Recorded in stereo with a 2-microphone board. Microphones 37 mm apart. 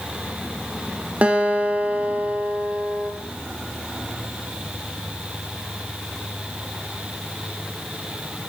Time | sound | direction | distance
1.2 | a guitar | 40° right (ahead or behind) | 3 m